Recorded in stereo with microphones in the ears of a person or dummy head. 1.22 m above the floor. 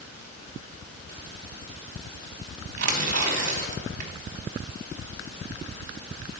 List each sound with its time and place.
2.8 s tearing paper: 55° right (ahead or behind), 1.3 m